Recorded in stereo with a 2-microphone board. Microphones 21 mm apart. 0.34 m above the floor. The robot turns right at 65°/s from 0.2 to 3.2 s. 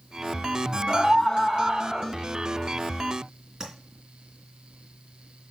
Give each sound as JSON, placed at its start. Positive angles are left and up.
{"t": 0.9, "sound": "a scream", "azimuth_deg": 100, "distance_m": 2.0}
{"t": 3.6, "sound": "tapping", "side_deg": -30, "distance_m": 3.0}